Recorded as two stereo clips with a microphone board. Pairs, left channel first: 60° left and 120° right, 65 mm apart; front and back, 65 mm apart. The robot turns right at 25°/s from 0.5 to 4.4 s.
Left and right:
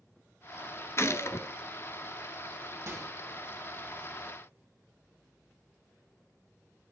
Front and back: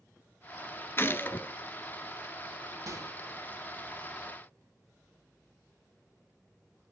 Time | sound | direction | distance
1.0 | a gunshot | 40° left | 0.9 m
2.9 | a microwave | 160° right | 4.5 m